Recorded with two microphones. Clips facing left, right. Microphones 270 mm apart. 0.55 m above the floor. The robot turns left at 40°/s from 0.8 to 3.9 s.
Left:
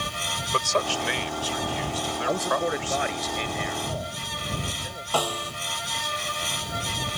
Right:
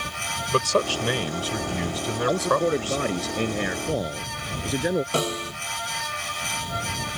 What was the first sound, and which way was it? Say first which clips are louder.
A man speaking: right 5 dB; 45° right.